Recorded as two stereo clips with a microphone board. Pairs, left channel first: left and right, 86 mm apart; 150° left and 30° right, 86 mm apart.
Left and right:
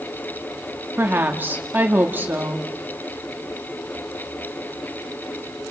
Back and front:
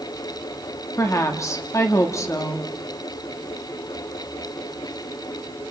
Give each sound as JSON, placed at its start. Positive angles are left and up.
{"t": 1.0, "sound": "a woman speaking", "azimuth_deg": -155, "distance_m": 2.0}